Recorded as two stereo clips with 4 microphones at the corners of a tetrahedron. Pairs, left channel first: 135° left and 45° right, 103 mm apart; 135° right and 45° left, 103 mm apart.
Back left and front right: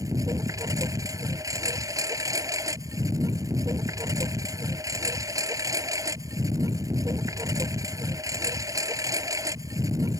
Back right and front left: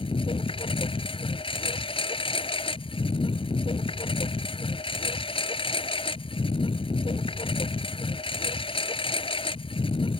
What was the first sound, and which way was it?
A lawn mower, 105° right.